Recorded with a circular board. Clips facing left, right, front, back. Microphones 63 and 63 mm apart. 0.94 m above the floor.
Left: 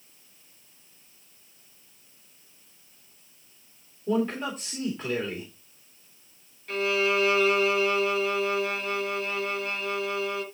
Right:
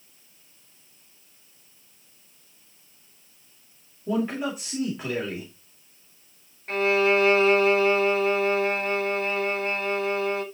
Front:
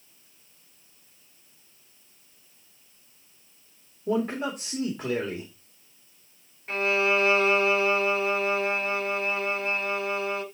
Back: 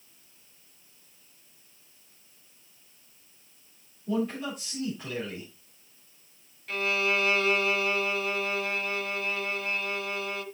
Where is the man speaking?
10° right, 2.5 m.